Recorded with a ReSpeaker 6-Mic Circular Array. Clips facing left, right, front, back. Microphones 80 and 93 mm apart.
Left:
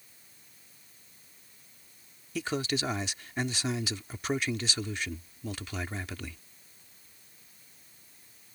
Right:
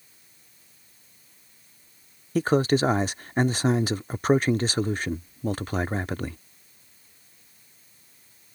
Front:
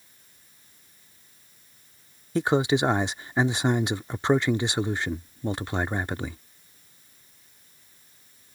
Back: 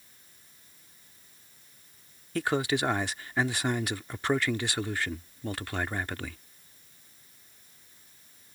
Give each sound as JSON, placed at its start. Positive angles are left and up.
{"t": 2.4, "sound": "a man speaking", "azimuth_deg": -60}